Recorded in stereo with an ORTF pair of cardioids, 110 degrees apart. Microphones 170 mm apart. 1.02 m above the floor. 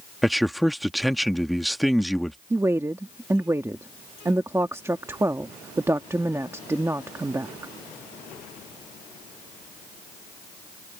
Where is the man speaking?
Straight ahead.